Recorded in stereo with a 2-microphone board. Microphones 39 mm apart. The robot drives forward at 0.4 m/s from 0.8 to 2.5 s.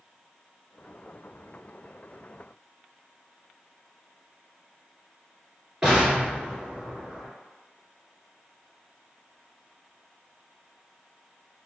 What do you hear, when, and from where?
5.8 s an explosion: 15° right (ahead or behind), 1.5 m